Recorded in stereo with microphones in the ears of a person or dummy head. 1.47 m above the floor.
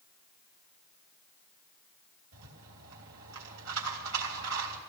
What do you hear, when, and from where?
2.3 s a rattle: 85° right, 3.5 m